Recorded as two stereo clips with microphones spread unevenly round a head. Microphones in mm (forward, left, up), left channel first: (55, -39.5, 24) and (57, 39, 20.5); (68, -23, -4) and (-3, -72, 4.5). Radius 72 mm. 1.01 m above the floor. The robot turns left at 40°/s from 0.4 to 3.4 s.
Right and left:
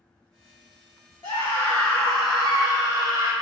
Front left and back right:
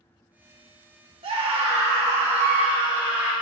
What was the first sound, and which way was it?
A scream, 135° right.